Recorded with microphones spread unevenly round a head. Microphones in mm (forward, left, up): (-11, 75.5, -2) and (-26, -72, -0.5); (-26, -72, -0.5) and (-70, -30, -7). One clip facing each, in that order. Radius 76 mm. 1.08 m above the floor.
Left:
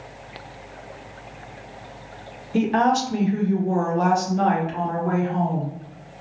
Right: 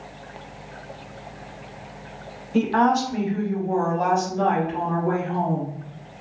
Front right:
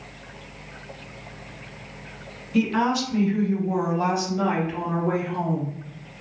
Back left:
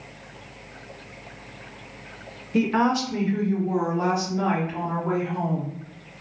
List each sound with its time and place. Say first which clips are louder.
2.5 s a woman speaking: even, back left 1 dB; 150° left, 0.6 m; by 5.8 s 65° left, 1.8 m